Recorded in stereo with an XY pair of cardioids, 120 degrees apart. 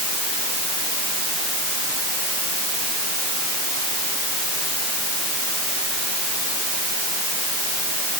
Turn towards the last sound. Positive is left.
No sound to turn to.